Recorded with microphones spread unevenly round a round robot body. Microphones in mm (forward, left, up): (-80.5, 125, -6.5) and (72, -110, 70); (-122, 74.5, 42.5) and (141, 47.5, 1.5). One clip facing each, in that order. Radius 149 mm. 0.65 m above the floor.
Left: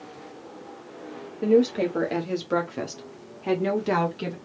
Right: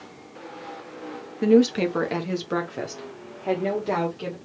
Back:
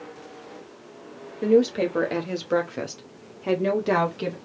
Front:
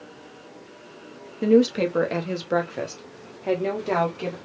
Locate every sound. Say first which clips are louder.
1.4 s a woman speaking: right 2 dB, front 1 dB; 15° right, 1.0 m; by 4.3 s 110° left, 1.6 m